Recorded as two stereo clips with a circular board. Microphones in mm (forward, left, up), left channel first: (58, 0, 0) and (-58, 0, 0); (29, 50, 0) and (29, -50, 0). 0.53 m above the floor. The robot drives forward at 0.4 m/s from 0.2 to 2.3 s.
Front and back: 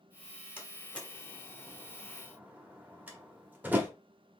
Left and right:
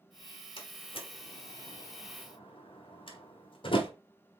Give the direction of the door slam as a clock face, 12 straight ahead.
10 o'clock.